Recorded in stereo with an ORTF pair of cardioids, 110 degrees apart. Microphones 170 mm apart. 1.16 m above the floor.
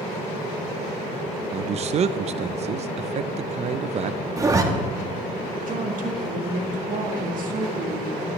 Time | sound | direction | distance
1.5 | a man speaking | 45° right | 0.7 m
4.4 | a zipper | 20° right | 1.3 m
5.7 | a woman speaking | 60° right | 1.8 m